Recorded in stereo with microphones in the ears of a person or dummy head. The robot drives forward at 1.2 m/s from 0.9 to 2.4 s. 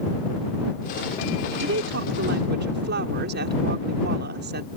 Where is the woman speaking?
75° right (ahead or behind); by 4.7 s 65° right (ahead or behind).